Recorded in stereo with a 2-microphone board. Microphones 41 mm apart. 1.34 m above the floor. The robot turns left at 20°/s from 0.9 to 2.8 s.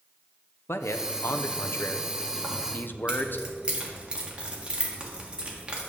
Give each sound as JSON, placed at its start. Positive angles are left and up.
{"t": 0.7, "sound": "a man speaking", "azimuth_deg": 90, "distance_m": 0.6}
{"t": 2.4, "sound": "keys jangling", "side_deg": -15, "distance_m": 1.4}